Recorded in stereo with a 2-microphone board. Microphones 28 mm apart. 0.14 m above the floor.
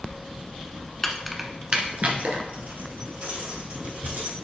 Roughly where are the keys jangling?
Centre.